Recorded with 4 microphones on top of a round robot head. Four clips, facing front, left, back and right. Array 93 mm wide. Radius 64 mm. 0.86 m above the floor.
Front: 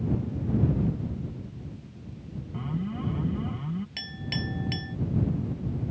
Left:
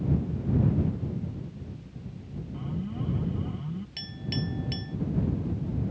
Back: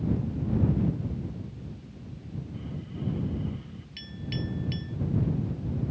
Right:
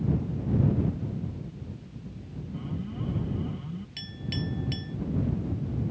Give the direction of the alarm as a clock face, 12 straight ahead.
12 o'clock.